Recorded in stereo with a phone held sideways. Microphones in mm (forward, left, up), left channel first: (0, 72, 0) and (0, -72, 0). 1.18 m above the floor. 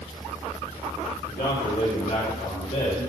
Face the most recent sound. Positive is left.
turn(degrees=75)  # may be behind; listen again after turning